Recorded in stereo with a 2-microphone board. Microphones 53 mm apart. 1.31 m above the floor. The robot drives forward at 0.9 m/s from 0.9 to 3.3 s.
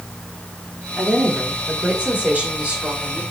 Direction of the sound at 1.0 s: 40° right (ahead or behind).